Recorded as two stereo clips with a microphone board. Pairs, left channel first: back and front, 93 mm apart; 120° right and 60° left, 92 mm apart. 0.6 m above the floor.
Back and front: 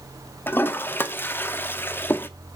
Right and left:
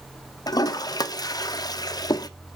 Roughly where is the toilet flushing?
Behind right.